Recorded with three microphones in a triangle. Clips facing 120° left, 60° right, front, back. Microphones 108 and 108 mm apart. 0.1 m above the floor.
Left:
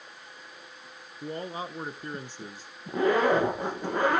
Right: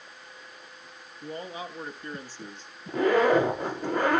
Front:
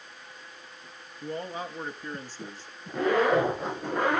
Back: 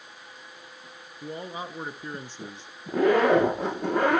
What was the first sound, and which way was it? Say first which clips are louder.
A man speaking: left 2 dB, front 1 dB; 105° left.